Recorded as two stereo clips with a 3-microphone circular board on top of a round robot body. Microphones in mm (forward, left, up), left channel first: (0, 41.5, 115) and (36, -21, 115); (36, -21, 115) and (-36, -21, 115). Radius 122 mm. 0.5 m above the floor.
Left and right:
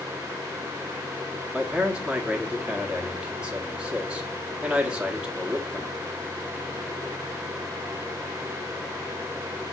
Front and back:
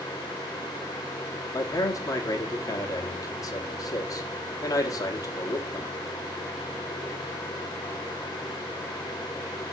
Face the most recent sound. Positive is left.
turn(degrees=10)